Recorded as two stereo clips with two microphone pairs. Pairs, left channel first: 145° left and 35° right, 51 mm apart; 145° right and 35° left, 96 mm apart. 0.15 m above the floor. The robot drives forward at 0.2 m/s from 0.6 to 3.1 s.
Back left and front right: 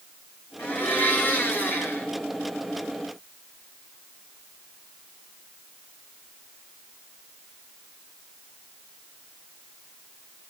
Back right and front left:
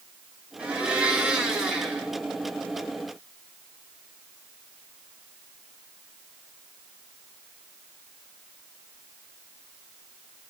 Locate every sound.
0.6 s a blender: 110° left, 1.9 m; by 2.1 s 120° left, 2.0 m